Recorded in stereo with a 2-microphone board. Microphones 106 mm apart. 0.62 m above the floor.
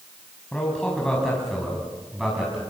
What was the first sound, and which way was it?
A man speaking, 10° left (ahead or behind).